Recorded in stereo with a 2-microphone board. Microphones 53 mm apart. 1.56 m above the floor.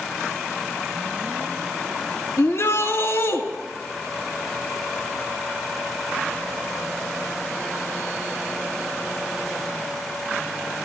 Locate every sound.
2.4 s a shout: 60° left (ahead or behind), 2 m